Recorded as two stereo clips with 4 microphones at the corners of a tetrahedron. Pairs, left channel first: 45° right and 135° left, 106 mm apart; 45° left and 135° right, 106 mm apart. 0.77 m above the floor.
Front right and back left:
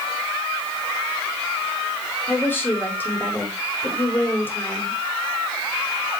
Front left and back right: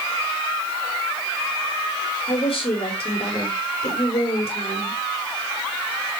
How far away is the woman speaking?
About 3.5 m.